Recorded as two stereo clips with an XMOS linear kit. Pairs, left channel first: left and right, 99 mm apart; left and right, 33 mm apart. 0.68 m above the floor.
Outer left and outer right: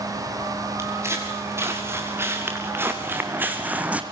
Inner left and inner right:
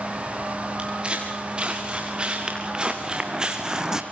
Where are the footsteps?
30° right (ahead or behind), 6.5 m; by 4.0 s 15° right (ahead or behind), 2 m.